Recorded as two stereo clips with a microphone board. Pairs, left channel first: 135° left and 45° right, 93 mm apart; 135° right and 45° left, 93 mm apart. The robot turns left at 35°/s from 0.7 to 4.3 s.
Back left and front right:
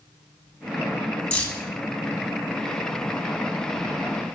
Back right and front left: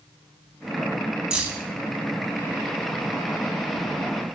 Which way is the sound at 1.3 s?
100° left.